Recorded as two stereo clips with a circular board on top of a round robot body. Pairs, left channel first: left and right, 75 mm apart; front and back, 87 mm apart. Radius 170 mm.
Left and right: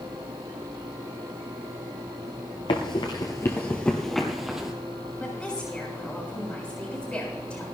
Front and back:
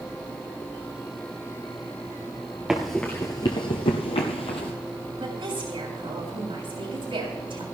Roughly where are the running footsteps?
Left.